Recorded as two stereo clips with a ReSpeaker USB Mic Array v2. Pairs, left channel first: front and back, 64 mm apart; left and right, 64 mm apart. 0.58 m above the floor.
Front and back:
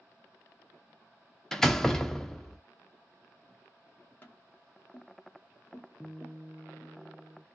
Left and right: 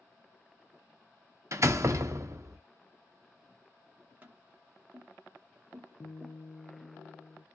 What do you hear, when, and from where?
1.5 s a door slam: 80° right, 0.5 m
4.2 s tapping: 45° right, 0.8 m
6.0 s a guitar: 80° left, 0.7 m